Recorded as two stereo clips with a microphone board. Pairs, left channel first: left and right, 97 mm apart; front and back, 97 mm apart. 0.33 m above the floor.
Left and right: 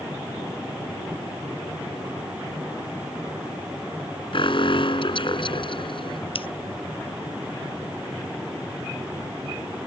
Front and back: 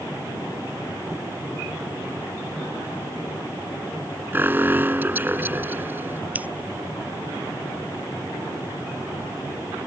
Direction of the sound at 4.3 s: 110° left.